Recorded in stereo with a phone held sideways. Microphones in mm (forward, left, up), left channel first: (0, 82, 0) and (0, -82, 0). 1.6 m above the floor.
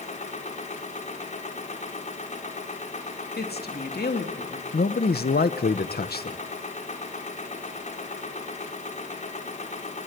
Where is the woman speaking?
80° left, 2.5 m.